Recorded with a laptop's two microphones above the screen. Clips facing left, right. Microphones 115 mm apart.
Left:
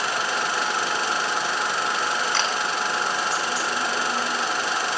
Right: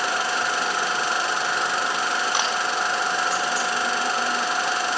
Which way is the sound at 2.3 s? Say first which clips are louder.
Right 1 dB; 15° right (ahead or behind).